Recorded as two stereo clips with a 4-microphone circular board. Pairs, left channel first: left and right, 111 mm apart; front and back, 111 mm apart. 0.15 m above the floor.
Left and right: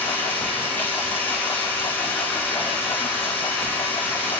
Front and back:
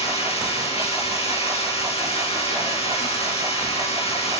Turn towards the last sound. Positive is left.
turn(degrees=15)